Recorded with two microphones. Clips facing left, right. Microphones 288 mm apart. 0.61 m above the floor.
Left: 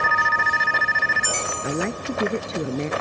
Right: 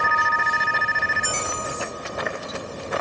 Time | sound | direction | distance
1.6 | a woman speaking | 85° left | ?